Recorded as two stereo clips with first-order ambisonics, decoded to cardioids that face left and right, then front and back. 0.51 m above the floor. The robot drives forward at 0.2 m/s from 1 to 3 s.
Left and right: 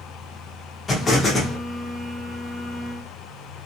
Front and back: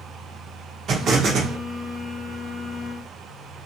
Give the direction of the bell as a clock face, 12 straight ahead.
I don't hear a bell.